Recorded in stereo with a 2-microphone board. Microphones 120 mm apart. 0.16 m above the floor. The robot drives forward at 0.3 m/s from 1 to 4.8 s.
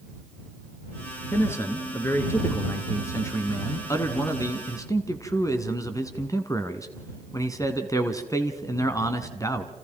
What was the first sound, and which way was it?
A man speaking, 20° left (ahead or behind).